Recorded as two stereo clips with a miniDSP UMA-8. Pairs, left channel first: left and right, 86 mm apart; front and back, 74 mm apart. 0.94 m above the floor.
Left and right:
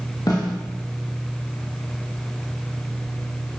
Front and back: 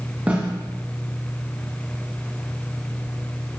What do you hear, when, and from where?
0.3 s a snare drum: 115° left, 1.2 m